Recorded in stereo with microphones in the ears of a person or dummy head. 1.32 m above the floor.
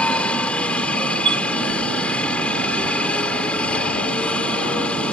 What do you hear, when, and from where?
0.0 s a helicopter: 5° left (ahead or behind)
1.2 s a chime: 25° right (ahead or behind)